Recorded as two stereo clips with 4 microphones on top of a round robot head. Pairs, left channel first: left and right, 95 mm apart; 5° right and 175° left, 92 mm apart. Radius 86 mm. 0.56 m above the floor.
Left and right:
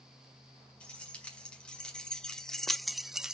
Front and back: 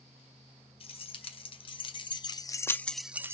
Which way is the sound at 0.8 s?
10° left.